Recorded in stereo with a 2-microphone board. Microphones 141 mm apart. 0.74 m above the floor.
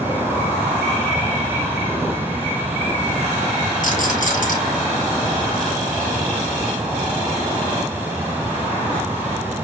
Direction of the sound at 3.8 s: 70° left (ahead or behind).